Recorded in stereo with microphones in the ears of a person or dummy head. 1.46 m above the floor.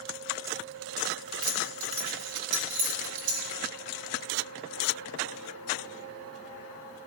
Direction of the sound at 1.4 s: 50° right (ahead or behind).